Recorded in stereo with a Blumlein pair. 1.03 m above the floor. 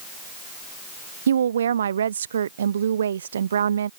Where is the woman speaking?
65° right.